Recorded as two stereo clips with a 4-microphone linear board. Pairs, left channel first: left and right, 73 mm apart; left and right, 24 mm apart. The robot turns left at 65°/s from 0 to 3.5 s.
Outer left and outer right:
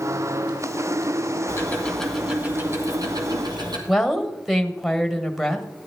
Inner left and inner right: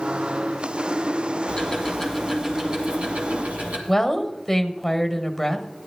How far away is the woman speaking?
About 1.4 m.